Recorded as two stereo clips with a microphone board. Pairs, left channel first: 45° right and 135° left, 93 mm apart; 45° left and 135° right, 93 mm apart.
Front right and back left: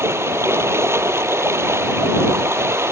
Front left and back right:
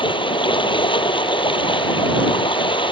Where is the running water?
75° left.